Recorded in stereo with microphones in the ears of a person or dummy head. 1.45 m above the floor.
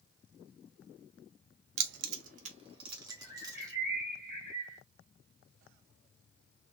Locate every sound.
1.8 s keys jangling: 65° right (ahead or behind), 0.6 m; by 3.7 s 15° right (ahead or behind), 1.7 m
3.1 s a bird: 15° right (ahead or behind), 2.0 m